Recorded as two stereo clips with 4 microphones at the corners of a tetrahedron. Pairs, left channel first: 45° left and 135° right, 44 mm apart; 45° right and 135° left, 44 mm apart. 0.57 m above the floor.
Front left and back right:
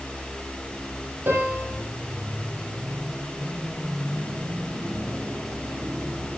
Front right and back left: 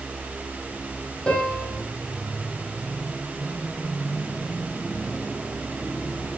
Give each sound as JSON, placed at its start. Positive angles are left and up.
{"t": 1.3, "sound": "a piano", "azimuth_deg": -115, "distance_m": 6.0}